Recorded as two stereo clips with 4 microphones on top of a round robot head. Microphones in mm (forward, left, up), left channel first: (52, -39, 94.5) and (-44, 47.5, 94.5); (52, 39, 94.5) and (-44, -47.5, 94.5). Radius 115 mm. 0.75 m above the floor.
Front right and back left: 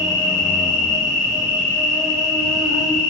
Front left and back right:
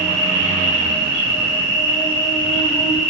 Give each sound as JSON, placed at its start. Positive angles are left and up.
{"t": 0.0, "sound": "an insect", "azimuth_deg": 45, "distance_m": 3.0}